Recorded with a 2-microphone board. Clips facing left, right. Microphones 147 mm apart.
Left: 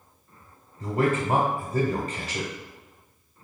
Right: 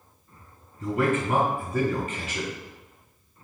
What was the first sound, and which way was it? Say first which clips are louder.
A man speaking: even; 40° left (ahead or behind).